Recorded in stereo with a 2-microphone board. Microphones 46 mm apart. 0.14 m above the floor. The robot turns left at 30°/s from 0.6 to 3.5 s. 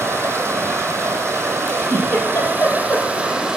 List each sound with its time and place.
0.0 s running water: 80° right, 3.5 m; by 3.6 s 165° right, 3.5 m
1.7 s a giggle: 40° left (ahead or behind), 4 m; by 3.5 s 70° left (ahead or behind), 4 m